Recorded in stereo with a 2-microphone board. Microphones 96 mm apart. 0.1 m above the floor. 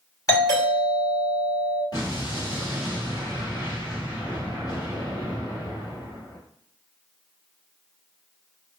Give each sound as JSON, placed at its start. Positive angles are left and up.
{"t": 0.3, "sound": "a doorbell", "side_deg": 35, "distance_m": 1.9}
{"t": 1.9, "sound": "an explosion", "side_deg": 40, "distance_m": 1.9}